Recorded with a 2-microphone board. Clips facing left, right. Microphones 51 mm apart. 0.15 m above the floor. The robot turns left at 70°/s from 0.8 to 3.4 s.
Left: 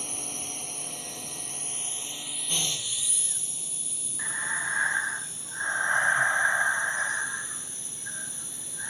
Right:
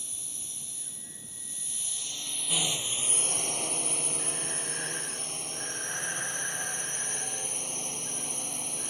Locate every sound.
0.0 s a drone: 115° left; by 8.9 s 65° right
4.2 s breathing: 45° left (ahead or behind)